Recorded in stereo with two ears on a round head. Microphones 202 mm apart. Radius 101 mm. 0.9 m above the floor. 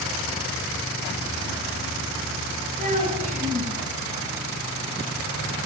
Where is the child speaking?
35° right (ahead or behind), 9 m.